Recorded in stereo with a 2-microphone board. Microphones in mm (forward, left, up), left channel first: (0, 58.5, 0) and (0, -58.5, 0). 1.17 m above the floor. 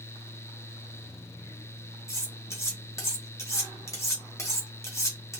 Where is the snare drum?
I don't hear a snare drum.